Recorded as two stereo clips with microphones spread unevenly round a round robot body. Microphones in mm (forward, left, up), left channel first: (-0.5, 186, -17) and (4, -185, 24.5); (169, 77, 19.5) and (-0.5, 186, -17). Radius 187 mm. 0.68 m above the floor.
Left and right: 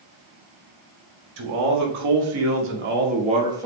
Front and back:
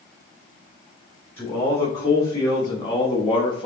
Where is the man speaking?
120° right, 1.7 m; by 3.7 s straight ahead, 1.1 m.